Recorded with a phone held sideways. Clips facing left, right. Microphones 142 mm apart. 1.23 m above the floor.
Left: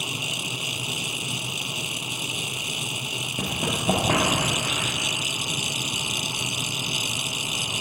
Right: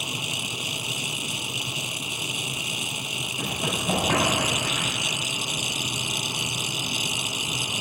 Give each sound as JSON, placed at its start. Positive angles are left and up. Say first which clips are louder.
{"t": 3.4, "sound": "running footsteps", "louder": "left 1 dB", "side_deg": 50, "distance_m": 1.9}